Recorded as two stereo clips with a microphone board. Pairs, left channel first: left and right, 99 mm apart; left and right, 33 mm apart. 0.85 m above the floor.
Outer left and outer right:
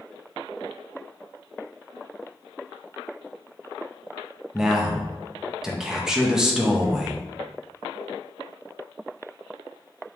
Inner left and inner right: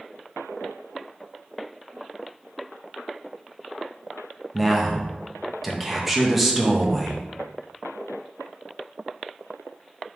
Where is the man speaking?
5° right (ahead or behind), 0.6 m.